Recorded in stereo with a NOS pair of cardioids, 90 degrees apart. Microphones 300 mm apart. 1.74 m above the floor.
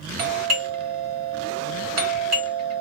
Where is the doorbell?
60° right, 1.3 m.